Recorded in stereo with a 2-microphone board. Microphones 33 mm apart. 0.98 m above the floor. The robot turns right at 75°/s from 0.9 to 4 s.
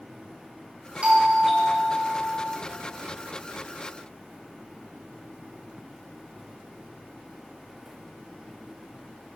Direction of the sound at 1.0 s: 40° right.